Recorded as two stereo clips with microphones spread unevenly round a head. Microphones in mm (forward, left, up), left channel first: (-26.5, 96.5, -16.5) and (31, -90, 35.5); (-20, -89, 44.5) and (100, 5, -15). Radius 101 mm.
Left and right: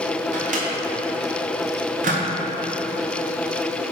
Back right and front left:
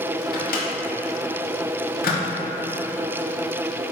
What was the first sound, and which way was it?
A microwave, 120° right.